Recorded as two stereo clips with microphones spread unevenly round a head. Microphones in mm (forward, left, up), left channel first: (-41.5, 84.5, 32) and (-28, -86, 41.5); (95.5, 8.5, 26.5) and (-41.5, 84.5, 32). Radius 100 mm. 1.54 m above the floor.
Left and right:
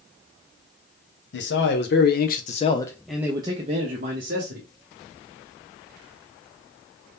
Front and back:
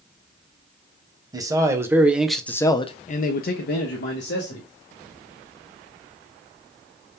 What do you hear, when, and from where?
1.3 s a man speaking: 85° left, 1.0 m; by 4.7 s 50° right, 1.1 m